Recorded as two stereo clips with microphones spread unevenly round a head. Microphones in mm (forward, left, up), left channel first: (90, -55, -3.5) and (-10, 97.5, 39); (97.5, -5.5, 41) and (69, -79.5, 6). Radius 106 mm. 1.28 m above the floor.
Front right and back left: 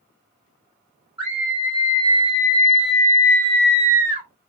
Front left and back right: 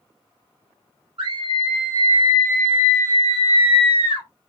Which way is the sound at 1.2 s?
100° right.